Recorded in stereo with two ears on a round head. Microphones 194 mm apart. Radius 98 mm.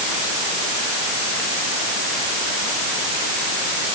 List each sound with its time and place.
Only background noise.